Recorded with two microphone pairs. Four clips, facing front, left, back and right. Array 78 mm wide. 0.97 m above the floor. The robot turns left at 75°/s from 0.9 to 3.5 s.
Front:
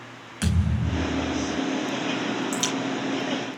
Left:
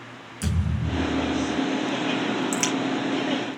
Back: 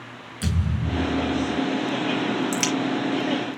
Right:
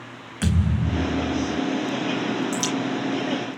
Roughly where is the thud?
Ahead right.